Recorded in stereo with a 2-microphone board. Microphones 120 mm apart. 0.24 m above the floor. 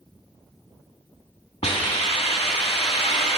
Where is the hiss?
55° left (ahead or behind), 1.1 m.